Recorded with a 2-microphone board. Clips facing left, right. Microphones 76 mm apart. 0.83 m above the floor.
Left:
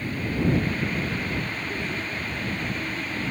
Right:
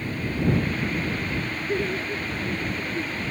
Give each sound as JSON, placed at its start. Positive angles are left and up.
{"t": 1.7, "sound": "laughter", "side_deg": -40}